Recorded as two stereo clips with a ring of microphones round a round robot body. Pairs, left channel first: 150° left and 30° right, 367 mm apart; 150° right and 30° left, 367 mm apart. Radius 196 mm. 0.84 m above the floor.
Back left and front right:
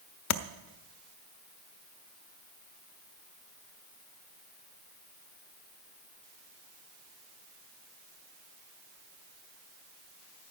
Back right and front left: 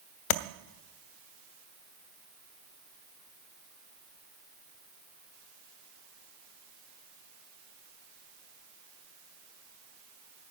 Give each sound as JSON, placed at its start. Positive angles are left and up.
{"t": 0.3, "sound": "tapping", "azimuth_deg": -160, "distance_m": 0.5}